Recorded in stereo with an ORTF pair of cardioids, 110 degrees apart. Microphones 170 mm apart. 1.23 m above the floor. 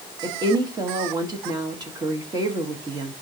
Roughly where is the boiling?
I don't hear boiling.